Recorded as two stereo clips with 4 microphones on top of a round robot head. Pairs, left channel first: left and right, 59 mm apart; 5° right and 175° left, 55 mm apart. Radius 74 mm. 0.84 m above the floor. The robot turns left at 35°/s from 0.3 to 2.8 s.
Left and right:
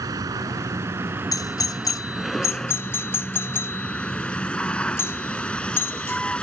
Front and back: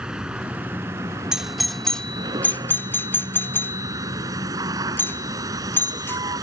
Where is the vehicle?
110° right; by 6.4 s 165° left.